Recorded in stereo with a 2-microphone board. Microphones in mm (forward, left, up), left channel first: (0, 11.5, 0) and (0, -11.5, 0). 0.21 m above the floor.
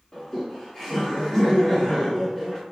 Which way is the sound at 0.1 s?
25° left (ahead or behind).